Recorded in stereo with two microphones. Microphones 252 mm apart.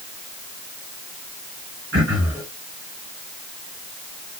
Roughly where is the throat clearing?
Right.